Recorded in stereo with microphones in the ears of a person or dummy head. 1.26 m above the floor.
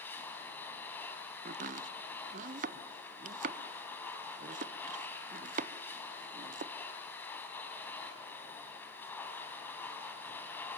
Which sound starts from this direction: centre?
A machine running, at 0.0 s.